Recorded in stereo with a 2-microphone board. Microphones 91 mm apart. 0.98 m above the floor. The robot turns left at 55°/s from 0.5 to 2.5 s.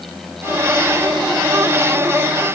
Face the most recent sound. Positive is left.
No sound to turn to.